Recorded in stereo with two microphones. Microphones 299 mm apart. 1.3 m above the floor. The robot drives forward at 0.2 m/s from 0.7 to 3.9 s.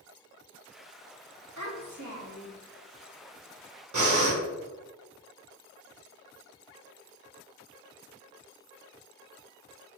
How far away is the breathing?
About 0.7 m.